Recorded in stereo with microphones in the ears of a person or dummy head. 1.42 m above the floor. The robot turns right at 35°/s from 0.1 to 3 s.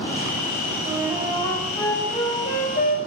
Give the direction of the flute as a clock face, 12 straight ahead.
1 o'clock.